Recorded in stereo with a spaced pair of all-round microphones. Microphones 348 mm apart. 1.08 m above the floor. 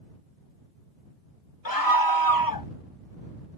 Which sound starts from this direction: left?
A scream, at 1.6 s.